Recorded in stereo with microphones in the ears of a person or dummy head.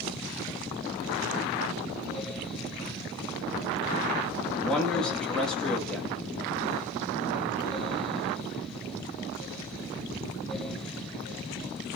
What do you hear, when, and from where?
4.6 s a man speaking: 5° left (ahead or behind), 2.5 m